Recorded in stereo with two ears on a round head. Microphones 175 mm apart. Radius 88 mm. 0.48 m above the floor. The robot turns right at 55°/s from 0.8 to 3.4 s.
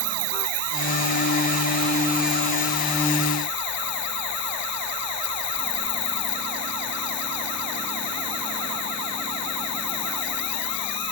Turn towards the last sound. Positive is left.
turn(degrees=60)